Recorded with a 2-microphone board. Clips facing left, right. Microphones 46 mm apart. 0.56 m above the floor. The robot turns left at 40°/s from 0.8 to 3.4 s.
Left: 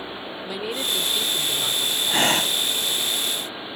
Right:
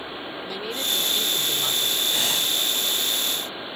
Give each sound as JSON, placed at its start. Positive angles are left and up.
{"t": 0.4, "sound": "a man speaking", "azimuth_deg": 15}
{"t": 2.1, "sound": "breathing", "side_deg": 50}